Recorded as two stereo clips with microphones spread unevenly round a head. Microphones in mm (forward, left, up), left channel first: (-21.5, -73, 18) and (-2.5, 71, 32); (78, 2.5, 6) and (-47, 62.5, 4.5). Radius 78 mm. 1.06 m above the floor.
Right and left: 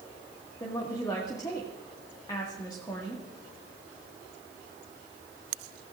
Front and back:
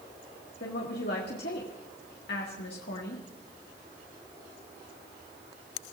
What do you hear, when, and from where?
0.6 s a woman speaking: 30° right, 1.8 m